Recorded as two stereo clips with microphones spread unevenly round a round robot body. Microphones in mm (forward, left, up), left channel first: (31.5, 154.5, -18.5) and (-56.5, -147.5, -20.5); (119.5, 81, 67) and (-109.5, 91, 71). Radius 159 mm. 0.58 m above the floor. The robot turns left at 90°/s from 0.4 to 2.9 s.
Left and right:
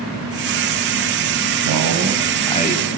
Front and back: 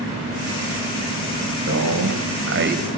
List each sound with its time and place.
1.6 s a man speaking: 130° right, 4 m; by 2.8 s 120° left, 4 m